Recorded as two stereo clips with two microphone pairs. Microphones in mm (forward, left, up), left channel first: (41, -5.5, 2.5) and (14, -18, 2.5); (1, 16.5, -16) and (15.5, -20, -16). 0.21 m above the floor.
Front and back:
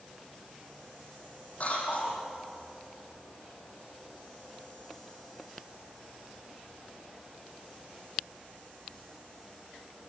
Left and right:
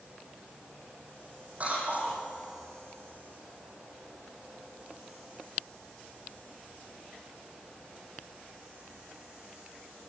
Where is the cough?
15° right, 8.5 m.